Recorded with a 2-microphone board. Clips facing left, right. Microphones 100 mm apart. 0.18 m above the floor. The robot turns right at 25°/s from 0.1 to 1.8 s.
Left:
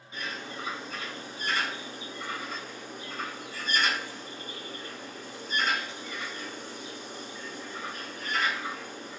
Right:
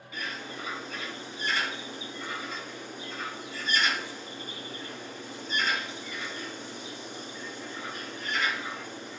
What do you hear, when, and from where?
0.1 s a bird: 25° left (ahead or behind), 1.6 m; by 9.2 s 45° left (ahead or behind), 1.6 m